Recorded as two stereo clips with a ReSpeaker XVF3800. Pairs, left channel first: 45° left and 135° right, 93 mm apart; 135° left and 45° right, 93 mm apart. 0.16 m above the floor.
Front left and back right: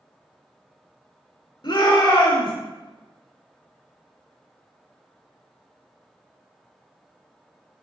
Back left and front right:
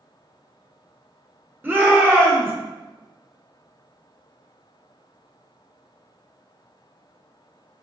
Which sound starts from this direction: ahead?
A shout, at 1.6 s.